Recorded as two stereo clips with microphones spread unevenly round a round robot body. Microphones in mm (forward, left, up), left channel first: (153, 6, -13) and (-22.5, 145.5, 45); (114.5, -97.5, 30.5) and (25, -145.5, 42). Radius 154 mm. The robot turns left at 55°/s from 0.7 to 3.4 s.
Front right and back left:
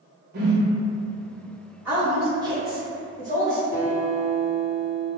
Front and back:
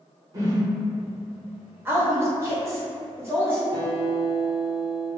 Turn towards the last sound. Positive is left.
turn(degrees=165)